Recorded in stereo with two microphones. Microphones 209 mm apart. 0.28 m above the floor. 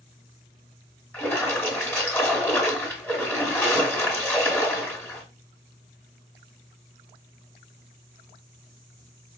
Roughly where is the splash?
Centre.